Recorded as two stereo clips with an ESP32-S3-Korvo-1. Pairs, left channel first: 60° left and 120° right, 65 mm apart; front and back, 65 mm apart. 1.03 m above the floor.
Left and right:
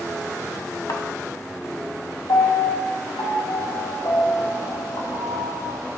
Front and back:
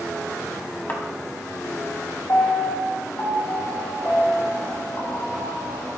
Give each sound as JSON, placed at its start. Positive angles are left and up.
{"t": 0.9, "sound": "a thud", "azimuth_deg": 55, "distance_m": 1.7}
{"t": 2.3, "sound": "a piano", "azimuth_deg": 50, "distance_m": 1.7}